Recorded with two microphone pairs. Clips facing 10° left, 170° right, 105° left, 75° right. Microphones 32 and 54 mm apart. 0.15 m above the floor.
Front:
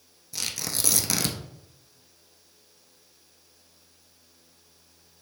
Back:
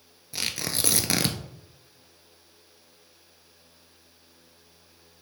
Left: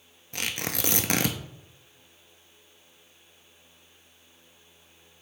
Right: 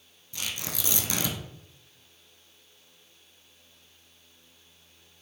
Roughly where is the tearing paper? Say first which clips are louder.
Back 2 dB, left 4 dB; behind left.